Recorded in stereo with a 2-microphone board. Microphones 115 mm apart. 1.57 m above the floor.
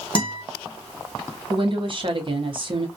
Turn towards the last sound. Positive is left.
turn(degrees=-50)  # may be behind; listen again after turning